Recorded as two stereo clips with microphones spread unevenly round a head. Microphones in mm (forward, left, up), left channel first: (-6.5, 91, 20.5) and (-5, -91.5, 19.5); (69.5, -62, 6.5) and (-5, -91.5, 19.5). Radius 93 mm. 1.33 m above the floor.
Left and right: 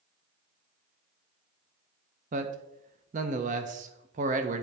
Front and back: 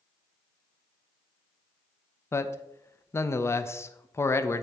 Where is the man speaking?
40° right, 0.6 m.